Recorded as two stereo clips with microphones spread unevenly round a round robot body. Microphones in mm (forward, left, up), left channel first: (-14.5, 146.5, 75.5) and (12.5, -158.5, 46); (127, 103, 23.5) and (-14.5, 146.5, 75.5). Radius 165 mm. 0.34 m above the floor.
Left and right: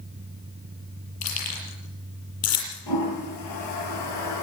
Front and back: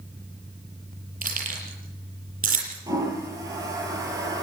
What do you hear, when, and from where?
1.2 s keys jangling: 135° left, 8.5 m
2.9 s a toilet flushing: 95° left, 8.5 m